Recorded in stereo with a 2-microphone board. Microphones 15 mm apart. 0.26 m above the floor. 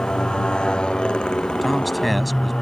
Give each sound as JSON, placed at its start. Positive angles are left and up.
{"t": 0.0, "sound": "a motorcycle", "side_deg": 75}
{"t": 1.6, "sound": "a man speaking", "side_deg": 0}